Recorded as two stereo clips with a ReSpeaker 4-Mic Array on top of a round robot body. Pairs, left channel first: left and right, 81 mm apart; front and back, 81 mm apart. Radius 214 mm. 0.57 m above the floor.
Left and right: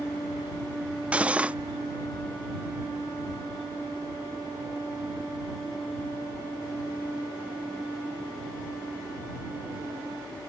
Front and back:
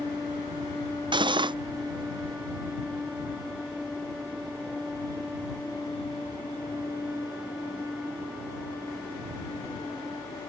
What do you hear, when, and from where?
1.1 s cutlery clinking: 165° right